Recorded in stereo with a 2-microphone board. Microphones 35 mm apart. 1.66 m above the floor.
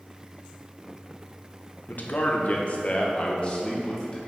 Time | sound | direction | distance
1.9 | a man speaking | 55° left (ahead or behind) | 0.9 m